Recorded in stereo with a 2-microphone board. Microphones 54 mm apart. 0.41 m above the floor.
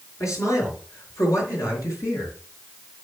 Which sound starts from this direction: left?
A man speaking, at 0.2 s.